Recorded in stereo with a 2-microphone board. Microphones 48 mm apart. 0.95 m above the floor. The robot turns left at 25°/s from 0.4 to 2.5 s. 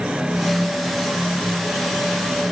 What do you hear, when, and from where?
Only background noise.